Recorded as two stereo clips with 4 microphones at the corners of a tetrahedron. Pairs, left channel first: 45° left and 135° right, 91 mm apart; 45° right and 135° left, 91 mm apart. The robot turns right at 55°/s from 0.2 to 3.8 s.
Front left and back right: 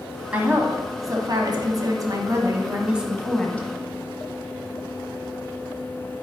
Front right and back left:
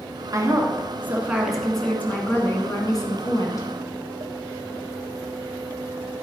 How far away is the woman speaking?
About 1.5 m.